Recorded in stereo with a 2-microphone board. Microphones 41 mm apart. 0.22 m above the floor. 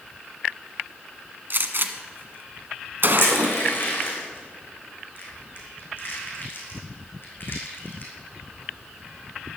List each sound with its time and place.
1.5 s a gunshot: 55° right (ahead or behind), 1.4 m
3.2 s crushing: 55° left (ahead or behind), 4.5 m